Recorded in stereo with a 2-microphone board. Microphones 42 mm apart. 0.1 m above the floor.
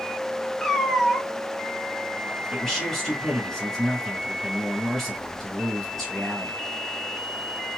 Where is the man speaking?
10° left (ahead or behind), 1.4 m.